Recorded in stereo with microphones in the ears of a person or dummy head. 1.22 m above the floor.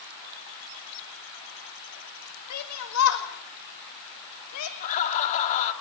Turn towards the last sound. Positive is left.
turn(degrees=35)  # may be behind; listen again after turning